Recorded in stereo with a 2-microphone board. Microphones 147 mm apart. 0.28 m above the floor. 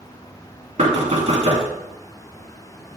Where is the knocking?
45° right (ahead or behind), 2.5 m.